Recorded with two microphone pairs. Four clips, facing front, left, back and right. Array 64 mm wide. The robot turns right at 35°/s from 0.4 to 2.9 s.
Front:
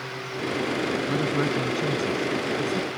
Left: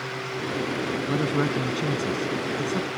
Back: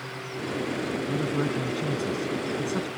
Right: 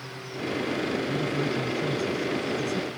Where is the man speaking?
60° left; by 2.9 s 125° left.